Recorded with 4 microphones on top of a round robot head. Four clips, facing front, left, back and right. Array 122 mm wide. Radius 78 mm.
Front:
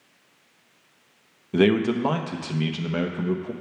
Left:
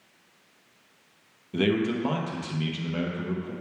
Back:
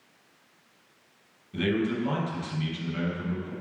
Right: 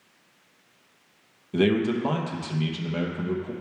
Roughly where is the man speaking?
Ahead.